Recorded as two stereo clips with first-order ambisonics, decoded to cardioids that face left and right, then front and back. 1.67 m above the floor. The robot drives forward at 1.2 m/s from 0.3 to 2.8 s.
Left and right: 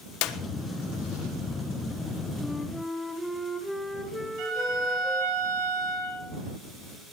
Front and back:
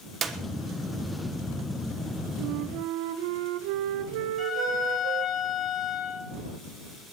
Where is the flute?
175° left, 0.9 m.